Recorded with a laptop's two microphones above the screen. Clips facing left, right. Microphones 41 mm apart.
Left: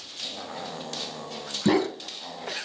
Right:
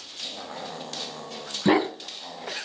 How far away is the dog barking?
About 2 m.